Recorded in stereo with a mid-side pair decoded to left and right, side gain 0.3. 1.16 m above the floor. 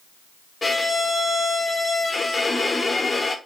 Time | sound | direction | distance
0.6 | a violin | 35° left | 0.8 m